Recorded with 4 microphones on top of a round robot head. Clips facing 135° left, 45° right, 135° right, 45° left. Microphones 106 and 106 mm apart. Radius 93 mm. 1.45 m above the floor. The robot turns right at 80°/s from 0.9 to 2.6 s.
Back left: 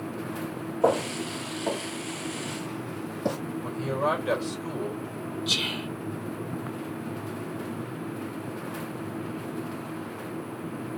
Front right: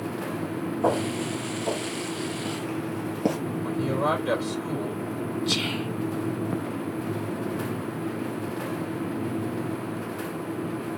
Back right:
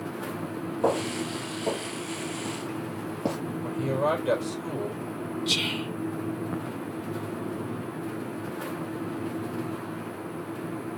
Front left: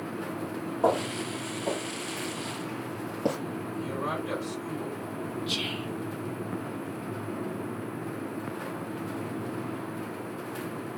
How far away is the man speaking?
About 3.5 m.